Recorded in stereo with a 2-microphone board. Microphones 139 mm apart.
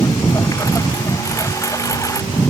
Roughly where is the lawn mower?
Left.